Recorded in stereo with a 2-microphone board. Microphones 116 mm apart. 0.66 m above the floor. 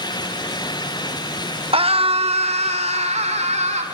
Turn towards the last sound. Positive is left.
turn(degrees=-70)  # may be behind; listen again after turning